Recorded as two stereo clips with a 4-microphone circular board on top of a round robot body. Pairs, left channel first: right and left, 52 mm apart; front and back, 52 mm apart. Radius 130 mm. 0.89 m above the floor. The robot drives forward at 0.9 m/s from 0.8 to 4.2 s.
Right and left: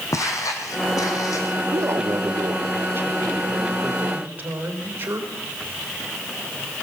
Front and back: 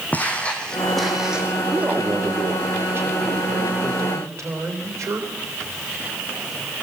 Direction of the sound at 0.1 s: 60° right.